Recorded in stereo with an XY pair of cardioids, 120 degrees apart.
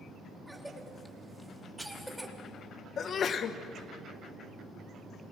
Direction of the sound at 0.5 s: 5° right.